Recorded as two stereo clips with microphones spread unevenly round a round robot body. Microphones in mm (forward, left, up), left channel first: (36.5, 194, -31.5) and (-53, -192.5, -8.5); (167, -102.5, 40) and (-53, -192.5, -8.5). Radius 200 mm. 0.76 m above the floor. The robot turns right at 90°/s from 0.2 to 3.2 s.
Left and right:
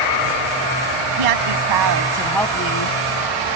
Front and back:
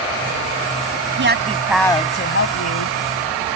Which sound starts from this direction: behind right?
A woman speaking, at 1.2 s.